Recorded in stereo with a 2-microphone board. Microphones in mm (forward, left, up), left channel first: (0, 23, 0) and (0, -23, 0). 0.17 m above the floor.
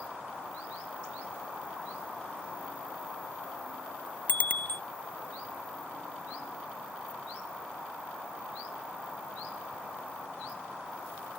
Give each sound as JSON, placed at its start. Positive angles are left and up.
{"t": 4.3, "sound": "a bicycle bell", "side_deg": 40}